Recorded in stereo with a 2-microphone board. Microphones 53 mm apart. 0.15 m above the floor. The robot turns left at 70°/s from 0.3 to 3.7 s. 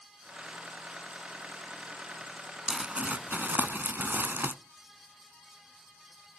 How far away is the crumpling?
About 0.6 m.